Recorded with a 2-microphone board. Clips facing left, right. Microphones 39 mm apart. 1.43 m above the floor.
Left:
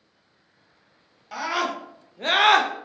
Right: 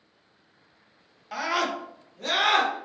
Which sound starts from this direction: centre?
A scream, at 1.3 s.